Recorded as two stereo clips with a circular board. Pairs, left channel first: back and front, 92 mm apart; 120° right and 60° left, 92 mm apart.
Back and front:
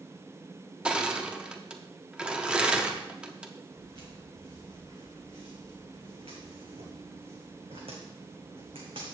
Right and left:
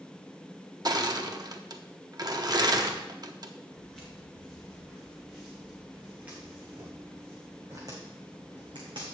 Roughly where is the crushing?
Left.